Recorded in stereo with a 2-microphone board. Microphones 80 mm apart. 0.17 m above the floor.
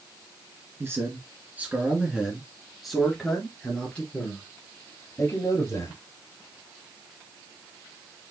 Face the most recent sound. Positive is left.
turn(degrees=35)  # may be behind; listen again after turning